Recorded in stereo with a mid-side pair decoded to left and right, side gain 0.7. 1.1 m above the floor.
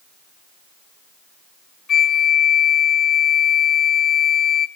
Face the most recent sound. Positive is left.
turn(degrees=30)